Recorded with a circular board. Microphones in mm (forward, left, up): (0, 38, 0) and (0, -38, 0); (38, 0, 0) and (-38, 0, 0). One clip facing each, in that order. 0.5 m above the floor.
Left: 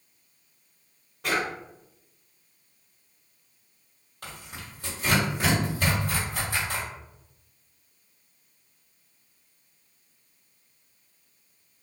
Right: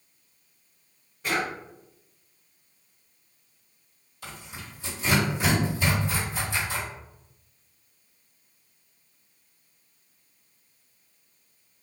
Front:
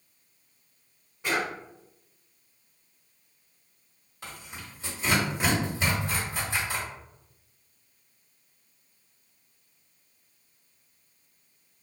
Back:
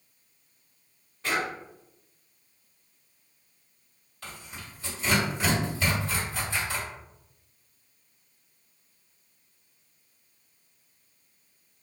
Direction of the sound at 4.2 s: 70° left.